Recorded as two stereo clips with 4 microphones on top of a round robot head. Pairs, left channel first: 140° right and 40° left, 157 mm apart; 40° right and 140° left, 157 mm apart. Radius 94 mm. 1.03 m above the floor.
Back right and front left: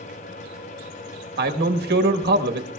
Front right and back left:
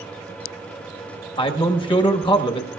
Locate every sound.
1.4 s a man speaking: 20° left, 1.3 m